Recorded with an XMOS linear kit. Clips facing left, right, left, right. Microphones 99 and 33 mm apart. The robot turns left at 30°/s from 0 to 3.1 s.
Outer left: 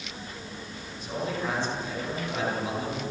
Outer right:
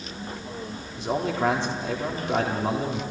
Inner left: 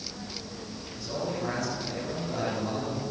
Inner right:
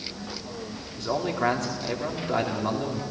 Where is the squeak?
No squeak in this recording.